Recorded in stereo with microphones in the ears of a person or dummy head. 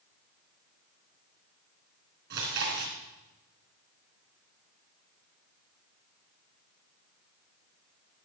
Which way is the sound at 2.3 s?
55° right (ahead or behind).